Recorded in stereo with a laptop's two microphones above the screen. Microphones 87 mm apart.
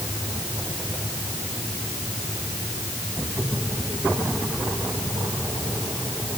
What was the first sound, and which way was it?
Only background noise.